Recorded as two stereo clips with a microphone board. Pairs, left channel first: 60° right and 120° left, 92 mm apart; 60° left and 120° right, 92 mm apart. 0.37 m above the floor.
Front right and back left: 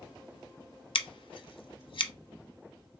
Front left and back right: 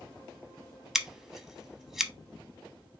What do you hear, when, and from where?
0.9 s scissors: 35° right, 0.6 m